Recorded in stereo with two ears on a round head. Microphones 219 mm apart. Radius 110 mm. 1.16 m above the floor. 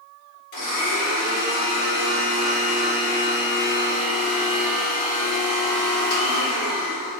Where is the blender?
45° left (ahead or behind), 2.0 m.